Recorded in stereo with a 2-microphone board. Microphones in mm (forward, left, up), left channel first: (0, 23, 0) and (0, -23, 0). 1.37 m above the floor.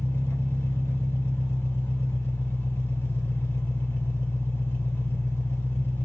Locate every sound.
0.0 s an engine running: 65° left (ahead or behind), 2 m